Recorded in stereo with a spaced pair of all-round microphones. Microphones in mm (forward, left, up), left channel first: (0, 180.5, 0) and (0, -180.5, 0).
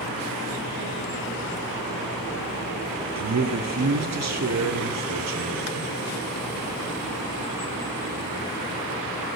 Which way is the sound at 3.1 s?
50° right (ahead or behind).